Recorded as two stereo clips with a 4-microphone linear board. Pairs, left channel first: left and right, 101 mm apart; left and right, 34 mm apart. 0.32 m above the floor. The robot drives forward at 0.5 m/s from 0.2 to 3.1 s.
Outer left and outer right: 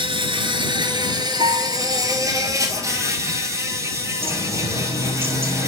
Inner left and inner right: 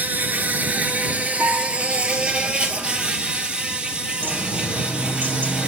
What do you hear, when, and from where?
0.0 s an insect: 55° right (ahead or behind), 1.5 m; by 5.7 s 30° right (ahead or behind), 2.5 m
1.4 s a guitar: 70° right (ahead or behind), 7.5 m
4.2 s a bird: 70° right (ahead or behind), 3 m